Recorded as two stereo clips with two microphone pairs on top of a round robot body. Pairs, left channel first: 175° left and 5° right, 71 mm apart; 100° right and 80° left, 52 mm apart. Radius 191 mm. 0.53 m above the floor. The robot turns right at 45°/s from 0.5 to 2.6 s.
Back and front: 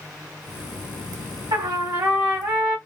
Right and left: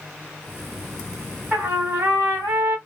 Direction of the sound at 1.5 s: 15° left.